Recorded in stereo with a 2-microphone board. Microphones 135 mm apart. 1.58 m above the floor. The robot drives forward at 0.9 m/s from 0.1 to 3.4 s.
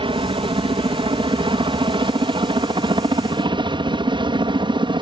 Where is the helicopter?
40° right (ahead or behind); by 5.0 s 35° right (ahead or behind).